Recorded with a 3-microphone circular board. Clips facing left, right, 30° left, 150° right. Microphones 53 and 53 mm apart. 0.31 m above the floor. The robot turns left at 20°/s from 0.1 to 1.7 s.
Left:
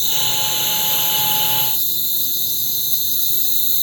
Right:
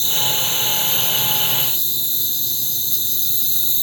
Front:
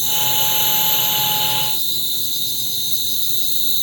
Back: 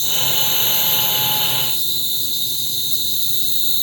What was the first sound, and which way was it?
An insect, 25° right.